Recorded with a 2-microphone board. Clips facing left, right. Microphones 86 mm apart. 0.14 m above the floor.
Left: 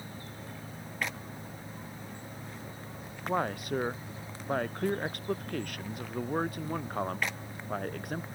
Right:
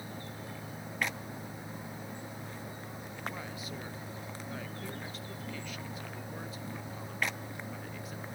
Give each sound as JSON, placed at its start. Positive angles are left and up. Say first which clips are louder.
{"t": 3.3, "sound": "a man speaking", "louder": "left 12 dB", "side_deg": 60}